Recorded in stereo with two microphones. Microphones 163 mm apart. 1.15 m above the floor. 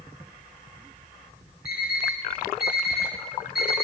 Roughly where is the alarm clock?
Left.